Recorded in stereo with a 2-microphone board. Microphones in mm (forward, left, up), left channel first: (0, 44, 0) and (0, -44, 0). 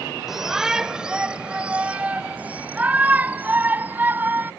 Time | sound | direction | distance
0.3 | a shout | 5° right (ahead or behind) | ?